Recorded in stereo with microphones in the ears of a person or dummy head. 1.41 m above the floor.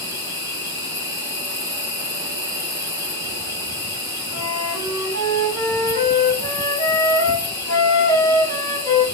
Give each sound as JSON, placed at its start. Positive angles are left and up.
{"t": 0.0, "sound": "an insect", "side_deg": 10, "distance_m": 3.0}
{"t": 4.3, "sound": "a flute", "side_deg": 20, "distance_m": 2.5}